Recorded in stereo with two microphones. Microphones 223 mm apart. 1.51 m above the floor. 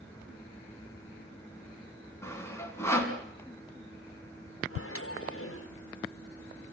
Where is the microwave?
70° left (ahead or behind), 1.5 m.